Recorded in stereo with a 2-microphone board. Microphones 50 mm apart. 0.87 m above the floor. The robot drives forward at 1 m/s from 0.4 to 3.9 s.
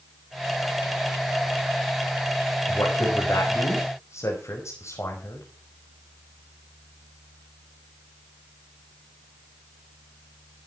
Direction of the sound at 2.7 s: 80° left.